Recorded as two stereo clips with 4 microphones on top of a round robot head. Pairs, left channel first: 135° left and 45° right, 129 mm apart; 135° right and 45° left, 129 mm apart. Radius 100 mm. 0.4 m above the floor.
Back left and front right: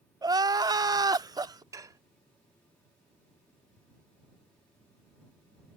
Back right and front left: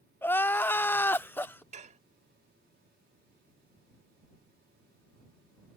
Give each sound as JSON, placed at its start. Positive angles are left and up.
{"t": 0.2, "sound": "crying", "azimuth_deg": -70}
{"t": 1.7, "sound": "dishes clattering", "azimuth_deg": 20}